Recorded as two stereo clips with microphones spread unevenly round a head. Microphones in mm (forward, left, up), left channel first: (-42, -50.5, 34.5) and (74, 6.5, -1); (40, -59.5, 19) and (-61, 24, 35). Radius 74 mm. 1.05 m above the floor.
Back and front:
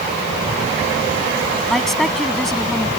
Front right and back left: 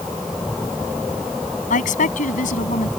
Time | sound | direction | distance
1.7 | a woman speaking | 70° right | ?